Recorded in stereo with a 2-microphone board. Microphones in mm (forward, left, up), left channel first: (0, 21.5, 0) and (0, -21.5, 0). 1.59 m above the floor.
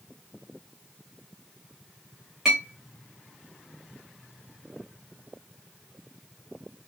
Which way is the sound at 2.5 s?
10° right (ahead or behind).